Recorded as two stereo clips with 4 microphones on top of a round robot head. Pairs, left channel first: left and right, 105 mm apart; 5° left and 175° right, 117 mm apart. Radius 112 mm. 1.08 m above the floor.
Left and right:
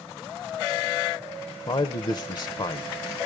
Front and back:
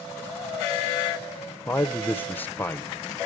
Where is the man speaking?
75° left, 0.9 m.